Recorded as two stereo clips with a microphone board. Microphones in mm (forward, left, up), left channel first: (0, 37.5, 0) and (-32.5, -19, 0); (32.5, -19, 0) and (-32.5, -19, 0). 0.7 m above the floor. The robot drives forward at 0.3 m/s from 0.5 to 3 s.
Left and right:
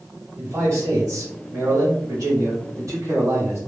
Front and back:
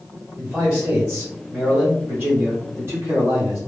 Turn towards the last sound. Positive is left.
turn(degrees=-130)